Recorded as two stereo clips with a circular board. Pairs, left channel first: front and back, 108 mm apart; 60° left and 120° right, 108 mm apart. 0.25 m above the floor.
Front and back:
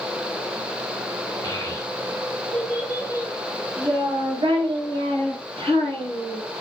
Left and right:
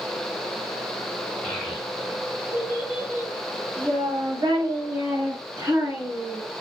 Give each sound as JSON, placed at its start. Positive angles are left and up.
{"t": 1.4, "sound": "a child speaking", "azimuth_deg": -20, "distance_m": 1.1}